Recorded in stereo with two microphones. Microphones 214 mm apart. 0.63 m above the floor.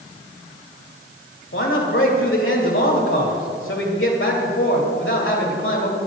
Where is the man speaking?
65° left (ahead or behind), 2.5 m.